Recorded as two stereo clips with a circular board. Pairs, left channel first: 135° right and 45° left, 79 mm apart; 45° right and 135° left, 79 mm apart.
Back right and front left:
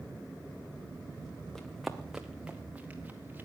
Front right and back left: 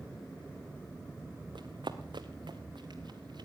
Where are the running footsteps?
140° left, 1.2 m; by 3.5 s 115° left, 2 m.